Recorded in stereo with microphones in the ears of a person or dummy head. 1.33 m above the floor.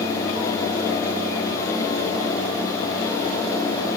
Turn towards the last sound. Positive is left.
No sound to turn to.